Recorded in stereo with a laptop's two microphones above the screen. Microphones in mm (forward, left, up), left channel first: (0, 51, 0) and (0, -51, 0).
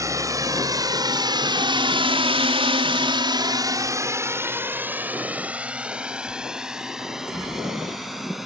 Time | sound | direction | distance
0.0 | a drone | 30° right (ahead or behind) | ?